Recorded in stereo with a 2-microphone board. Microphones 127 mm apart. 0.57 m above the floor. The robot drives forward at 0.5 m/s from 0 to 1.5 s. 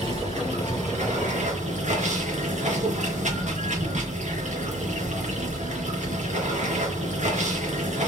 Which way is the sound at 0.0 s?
60° right (ahead or behind).